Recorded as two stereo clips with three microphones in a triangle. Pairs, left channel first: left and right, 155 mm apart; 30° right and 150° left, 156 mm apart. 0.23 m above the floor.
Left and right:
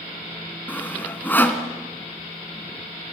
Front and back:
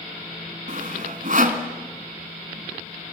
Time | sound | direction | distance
0.7 | sawing | 165° left | 1.8 m